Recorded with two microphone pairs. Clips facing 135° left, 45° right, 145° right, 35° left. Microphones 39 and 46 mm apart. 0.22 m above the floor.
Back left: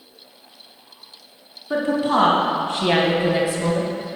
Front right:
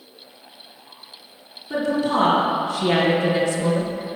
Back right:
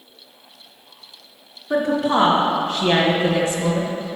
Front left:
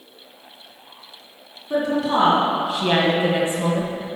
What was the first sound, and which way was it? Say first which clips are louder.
A woman speaking: back left 2 dB, back right 2 dB; 155° left.